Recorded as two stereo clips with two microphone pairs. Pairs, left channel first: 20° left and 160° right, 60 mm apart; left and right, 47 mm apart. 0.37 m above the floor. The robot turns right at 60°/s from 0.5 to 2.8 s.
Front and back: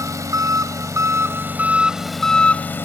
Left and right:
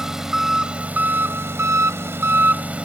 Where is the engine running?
170° right, 0.7 m; by 2.9 s 30° right, 0.7 m.